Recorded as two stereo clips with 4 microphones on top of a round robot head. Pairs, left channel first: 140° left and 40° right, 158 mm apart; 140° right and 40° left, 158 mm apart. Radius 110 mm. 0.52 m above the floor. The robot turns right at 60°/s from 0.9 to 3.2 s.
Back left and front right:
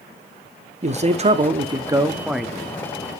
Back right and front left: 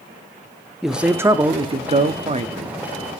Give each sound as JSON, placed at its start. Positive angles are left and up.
{"t": 0.8, "sound": "a man speaking", "azimuth_deg": -45, "distance_m": 0.8}